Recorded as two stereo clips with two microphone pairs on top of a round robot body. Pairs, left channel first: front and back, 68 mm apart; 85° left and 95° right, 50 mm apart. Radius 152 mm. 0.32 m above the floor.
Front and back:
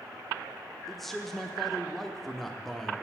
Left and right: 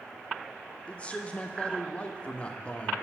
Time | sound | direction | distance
0.9 | a man speaking | 90° left | 1.0 m